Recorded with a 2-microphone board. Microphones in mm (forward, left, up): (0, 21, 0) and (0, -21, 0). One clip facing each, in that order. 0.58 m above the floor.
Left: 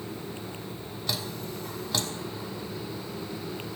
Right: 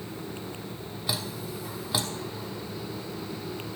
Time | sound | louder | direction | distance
1.1 | dripping | right 1 dB | 10° right (ahead or behind) | 1.3 m